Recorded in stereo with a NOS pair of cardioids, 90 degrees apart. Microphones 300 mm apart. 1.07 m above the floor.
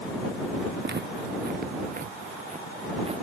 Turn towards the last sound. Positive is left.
turn(degrees=-20)